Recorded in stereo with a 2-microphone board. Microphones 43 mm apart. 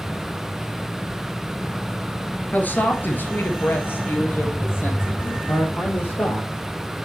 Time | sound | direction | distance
2.5 | a woman speaking | 40° left (ahead or behind) | 1.6 m
5.2 | a man speaking | 60° left (ahead or behind) | 5 m